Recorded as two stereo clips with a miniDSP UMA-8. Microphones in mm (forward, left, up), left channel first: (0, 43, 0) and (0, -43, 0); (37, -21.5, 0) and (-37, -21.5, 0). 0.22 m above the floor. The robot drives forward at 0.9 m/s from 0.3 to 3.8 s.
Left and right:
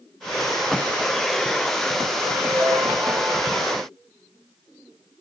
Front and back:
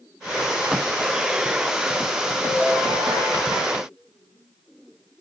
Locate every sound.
2.4 s a ringtone: 140° right, 1.7 m; by 3.6 s 155° right, 2.5 m